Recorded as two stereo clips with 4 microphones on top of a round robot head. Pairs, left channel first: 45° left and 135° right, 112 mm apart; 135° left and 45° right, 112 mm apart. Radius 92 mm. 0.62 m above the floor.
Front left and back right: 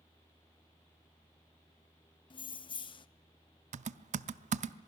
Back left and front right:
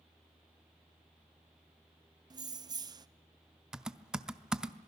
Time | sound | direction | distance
2.3 | keys jangling | 5° left | 0.6 m
3.7 | typing on a keyboard | 130° right | 0.6 m